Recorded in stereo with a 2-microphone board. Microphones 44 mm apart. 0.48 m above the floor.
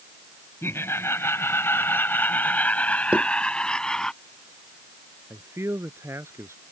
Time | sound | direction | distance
0.6 | laughter | 70° left (ahead or behind) | ?
3.1 | knocking | 30° right (ahead or behind) | ?
5.3 | a man speaking | 80° right | ?